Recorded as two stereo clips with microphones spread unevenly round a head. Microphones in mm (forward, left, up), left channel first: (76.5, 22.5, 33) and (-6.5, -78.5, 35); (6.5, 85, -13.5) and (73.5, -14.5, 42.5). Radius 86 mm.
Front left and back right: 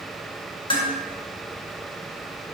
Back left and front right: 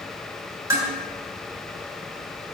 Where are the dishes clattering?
Straight ahead, 4 m.